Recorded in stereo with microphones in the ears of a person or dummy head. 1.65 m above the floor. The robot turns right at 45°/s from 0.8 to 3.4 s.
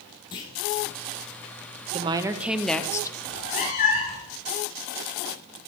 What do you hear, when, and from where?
0.3 s a clunk: 20° left (ahead or behind), 0.9 m
1.9 s a woman speaking: 30° right, 0.8 m; by 3.2 s 20° left, 0.8 m
3.3 s a cat meowing: 25° left (ahead or behind), 1.2 m